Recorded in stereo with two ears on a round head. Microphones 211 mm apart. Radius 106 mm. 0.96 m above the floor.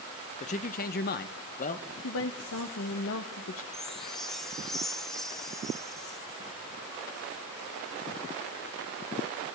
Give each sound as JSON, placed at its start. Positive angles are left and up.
{"t": 0.4, "sound": "a man speaking", "side_deg": 30, "distance_m": 0.7}
{"t": 2.0, "sound": "a woman speaking", "side_deg": 60, "distance_m": 0.8}
{"t": 3.7, "sound": "a chime", "side_deg": 0, "distance_m": 0.6}